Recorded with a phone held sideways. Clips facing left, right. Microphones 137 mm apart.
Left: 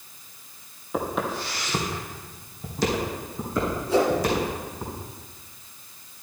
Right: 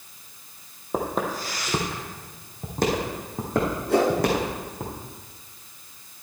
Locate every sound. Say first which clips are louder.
0.9 s footsteps: right 1 dB; 35° right (ahead or behind), 2 m; by 4.9 s 65° right (ahead or behind), 4 m
3.9 s a whoosh: right 1 dB; 65° right (ahead or behind), 2 m